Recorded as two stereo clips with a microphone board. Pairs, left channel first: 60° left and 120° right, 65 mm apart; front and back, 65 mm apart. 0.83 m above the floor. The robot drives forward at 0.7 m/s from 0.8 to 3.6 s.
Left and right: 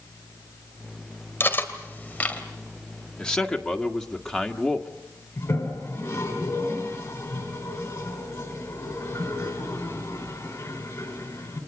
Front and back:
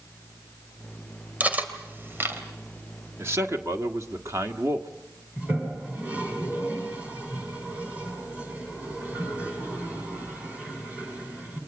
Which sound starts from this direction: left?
A toilet flushing, at 5.4 s.